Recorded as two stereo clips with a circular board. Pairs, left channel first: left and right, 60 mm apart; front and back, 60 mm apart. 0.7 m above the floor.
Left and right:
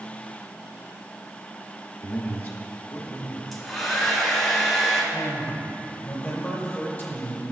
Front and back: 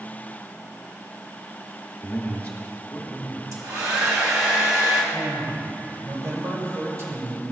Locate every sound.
2.0 s a man speaking: 50° left, 1.5 m
3.5 s a hair dryer: 175° left, 1.8 m
5.1 s a man speaking: 155° left, 2.5 m